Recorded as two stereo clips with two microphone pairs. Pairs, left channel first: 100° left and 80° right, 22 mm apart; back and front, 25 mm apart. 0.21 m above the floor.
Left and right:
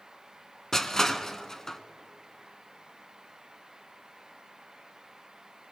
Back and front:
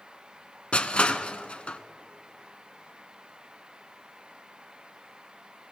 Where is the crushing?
165° left, 0.6 m.